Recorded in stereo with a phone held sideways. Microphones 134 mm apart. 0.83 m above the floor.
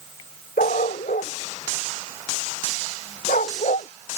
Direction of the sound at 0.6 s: 85° left.